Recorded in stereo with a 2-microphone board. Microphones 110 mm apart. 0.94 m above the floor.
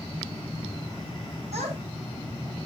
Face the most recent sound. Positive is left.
turn(degrees=-75)  # may be behind; listen again after turning